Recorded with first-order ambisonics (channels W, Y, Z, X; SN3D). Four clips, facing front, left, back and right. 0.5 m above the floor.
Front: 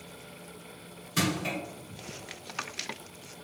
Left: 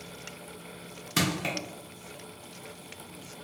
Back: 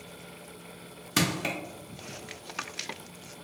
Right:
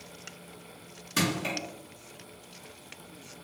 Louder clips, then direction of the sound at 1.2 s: Even, back 1 dB; 160° left.